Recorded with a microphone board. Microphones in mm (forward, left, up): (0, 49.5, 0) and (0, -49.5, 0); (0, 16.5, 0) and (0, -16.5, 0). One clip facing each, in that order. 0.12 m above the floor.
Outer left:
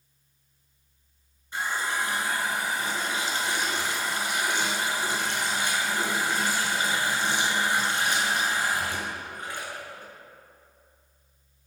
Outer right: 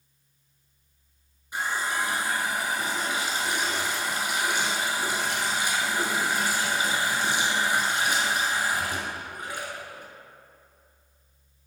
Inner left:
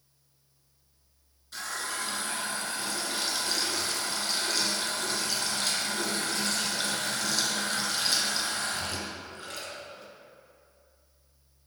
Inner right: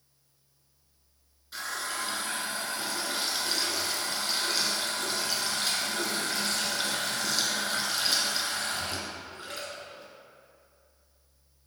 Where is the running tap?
15° right (ahead or behind), 1.1 m.